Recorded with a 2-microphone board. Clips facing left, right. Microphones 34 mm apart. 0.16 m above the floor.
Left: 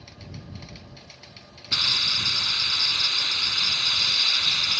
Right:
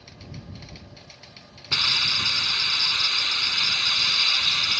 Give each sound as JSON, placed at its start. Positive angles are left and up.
{"t": 1.7, "sound": "a hiss", "side_deg": -35}